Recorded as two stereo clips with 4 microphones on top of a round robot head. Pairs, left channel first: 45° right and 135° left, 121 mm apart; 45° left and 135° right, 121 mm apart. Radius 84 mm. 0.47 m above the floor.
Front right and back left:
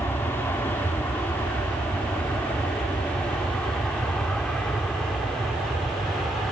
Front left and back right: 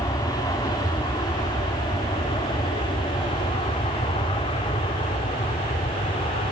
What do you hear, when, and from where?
0.0 s an aircraft: 15° left; by 6.5 s 45° left